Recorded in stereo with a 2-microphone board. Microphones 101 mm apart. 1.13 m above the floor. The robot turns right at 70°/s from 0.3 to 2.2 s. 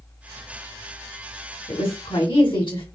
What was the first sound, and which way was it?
A woman speaking, 85° left.